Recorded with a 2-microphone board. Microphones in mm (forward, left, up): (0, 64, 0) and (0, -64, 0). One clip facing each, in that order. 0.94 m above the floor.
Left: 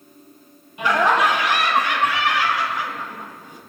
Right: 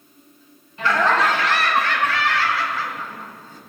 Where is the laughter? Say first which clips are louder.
Left 1 dB; 15° left (ahead or behind), 1.4 m.